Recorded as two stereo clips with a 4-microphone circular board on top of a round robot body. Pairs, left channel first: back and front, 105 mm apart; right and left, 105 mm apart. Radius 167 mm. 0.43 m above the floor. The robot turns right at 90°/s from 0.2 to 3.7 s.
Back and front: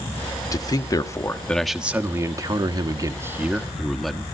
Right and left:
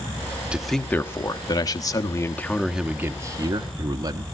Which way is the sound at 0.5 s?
165° left.